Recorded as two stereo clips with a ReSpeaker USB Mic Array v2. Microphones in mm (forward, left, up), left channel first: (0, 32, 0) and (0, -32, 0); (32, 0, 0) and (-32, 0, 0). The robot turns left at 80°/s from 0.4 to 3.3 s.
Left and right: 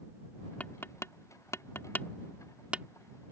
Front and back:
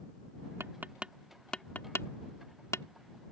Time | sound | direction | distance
0.6 | tapping | 145° left | ?